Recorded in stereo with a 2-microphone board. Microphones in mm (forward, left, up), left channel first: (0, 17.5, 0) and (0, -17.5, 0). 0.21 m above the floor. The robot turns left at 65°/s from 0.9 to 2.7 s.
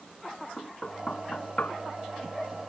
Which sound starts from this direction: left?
Knocking, at 0.6 s.